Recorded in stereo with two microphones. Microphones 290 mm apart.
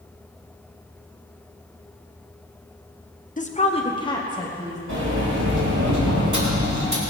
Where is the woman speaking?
25° left (ahead or behind), 0.8 m; by 4.8 s 10° left (ahead or behind), 2.5 m.